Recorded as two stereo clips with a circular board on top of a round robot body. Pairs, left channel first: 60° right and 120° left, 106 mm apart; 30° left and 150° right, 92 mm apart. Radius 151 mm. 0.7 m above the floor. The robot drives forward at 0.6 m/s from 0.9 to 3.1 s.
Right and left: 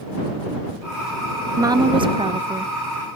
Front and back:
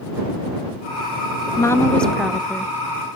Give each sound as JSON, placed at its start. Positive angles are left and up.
{"t": 1.6, "sound": "a woman speaking", "azimuth_deg": 70, "distance_m": 0.6}